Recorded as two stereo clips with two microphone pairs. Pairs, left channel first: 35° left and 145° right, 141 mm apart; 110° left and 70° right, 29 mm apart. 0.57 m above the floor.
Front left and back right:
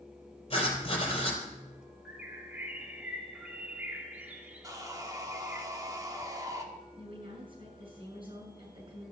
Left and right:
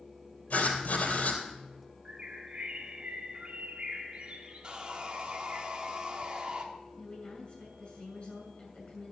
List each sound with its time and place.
0.5 s writing: 85° left, 3.5 m
2.0 s a bird: 70° right, 1.5 m
4.6 s sawing: 95° right, 1.6 m
7.0 s a woman speaking: 165° left, 7 m